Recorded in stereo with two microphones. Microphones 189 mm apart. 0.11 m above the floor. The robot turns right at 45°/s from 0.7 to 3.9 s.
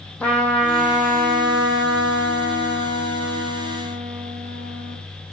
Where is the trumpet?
175° left, 0.7 m; by 5.0 s 45° right, 0.7 m.